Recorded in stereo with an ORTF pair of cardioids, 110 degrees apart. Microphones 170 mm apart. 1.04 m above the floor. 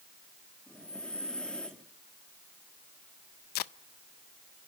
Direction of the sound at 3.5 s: 65° left.